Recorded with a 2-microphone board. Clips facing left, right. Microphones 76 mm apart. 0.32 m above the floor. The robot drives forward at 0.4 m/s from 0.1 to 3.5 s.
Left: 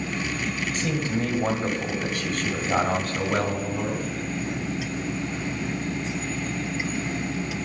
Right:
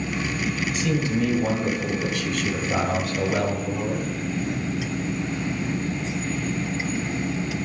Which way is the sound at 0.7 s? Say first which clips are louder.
Right 3 dB; 40° left (ahead or behind).